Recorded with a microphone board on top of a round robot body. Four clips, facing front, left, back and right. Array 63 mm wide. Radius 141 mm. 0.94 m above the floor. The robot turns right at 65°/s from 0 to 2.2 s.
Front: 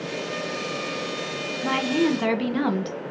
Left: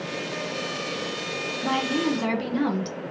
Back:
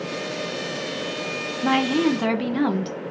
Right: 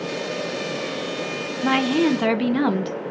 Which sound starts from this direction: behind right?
A woman speaking, at 1.6 s.